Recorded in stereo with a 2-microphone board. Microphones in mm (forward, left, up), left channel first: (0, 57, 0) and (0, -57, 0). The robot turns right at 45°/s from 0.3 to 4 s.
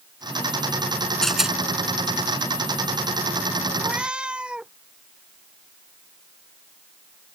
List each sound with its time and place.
1.2 s a rattle: 5° left (ahead or behind); by 1.6 s 10° right (ahead or behind)
3.8 s a cat meowing: 15° right (ahead or behind); by 4.7 s 10° right (ahead or behind)